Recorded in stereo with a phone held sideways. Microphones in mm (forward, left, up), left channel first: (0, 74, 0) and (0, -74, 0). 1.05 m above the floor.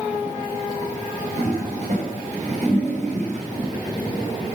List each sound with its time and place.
1.4 s a toilet flushing: 50° right (ahead or behind), 5.5 m